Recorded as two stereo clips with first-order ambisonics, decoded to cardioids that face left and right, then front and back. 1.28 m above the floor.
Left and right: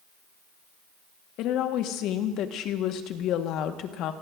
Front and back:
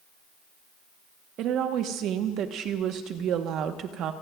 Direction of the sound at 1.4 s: 135° left.